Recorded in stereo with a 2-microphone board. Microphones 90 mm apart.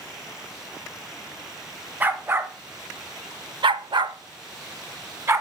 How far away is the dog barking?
About 1.0 m.